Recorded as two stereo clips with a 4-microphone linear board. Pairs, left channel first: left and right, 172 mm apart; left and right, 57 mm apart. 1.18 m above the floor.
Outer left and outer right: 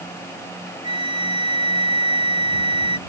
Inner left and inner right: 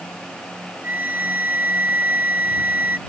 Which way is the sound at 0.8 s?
25° right (ahead or behind).